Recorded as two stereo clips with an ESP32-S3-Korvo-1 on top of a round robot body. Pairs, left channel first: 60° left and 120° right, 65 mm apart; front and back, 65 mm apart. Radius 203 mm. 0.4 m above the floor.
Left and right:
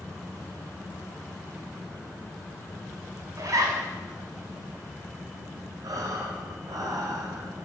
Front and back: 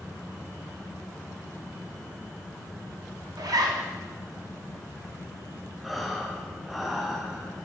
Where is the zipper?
155° right, 1.0 m.